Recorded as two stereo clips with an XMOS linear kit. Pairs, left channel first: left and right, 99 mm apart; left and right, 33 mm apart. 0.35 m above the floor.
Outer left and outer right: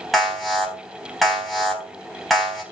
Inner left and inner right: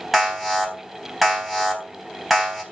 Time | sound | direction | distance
0.1 | an alarm | centre (ahead or behind) | 4 m